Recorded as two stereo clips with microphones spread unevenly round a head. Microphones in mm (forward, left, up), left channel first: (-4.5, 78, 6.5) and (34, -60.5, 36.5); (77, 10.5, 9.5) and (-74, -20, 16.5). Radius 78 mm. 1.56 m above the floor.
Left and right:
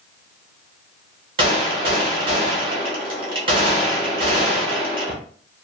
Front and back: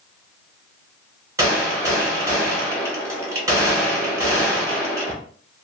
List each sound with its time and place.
1.4 s a gunshot: 105° right, 0.9 m